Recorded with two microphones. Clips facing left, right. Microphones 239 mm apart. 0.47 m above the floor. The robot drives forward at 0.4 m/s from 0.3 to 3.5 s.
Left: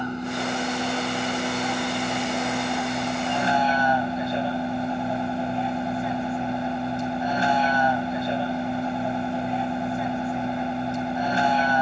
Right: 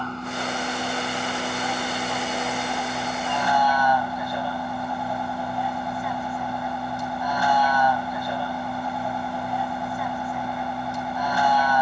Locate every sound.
0.0 s a vehicle: 15° left (ahead or behind); by 11.8 s 25° left (ahead or behind)